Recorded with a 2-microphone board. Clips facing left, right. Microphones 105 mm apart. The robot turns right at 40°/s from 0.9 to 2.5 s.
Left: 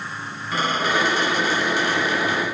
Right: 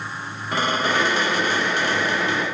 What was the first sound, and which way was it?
A squeak, 85° right.